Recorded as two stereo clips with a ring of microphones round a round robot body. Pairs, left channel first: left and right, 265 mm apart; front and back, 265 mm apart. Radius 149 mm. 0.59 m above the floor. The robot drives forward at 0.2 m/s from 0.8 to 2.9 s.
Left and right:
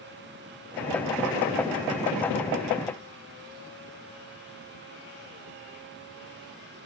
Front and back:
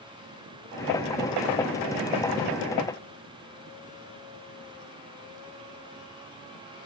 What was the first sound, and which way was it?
Only background noise.